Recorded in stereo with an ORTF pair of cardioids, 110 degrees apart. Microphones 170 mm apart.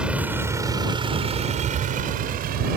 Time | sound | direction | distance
0.0 | a vehicle | 5° right | ?